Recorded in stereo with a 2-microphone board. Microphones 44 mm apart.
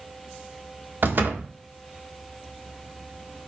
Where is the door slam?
50° right (ahead or behind), 1.2 m.